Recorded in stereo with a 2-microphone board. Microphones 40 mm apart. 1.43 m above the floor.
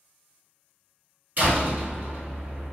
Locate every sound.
1.4 s a door slam: 45° right (ahead or behind), 1.7 m